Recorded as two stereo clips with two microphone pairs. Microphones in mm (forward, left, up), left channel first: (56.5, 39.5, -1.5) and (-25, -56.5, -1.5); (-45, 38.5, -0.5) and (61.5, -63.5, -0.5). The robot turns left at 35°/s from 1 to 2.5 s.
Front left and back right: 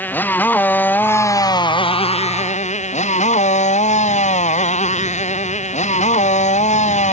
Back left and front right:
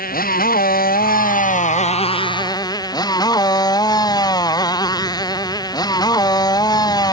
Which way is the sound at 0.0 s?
125° left.